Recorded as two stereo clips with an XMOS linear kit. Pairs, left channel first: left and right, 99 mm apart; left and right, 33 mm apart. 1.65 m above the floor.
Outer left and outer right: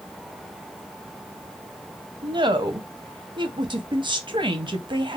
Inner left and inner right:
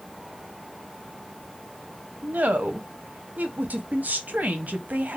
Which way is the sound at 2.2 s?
50° right (ahead or behind).